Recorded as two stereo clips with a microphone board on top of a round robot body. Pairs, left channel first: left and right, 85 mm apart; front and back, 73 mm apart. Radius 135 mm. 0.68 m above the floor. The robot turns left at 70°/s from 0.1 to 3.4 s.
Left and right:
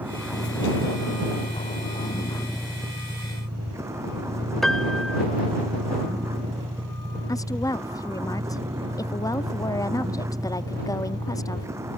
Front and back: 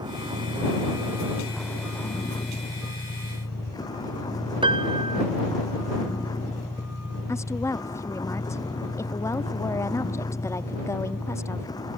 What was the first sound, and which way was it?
A vehicle, 160° right.